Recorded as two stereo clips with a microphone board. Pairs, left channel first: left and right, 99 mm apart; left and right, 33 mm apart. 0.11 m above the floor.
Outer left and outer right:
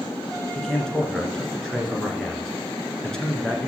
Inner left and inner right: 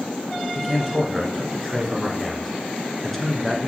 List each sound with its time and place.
0.6 s a man speaking: 5° left (ahead or behind), 1.3 m